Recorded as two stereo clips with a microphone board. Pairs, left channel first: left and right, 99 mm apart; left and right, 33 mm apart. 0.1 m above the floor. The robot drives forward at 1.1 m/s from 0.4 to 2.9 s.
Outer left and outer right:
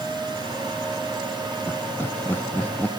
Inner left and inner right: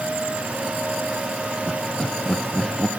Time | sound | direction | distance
1.7 | laughter | 25° left (ahead or behind) | 1.1 m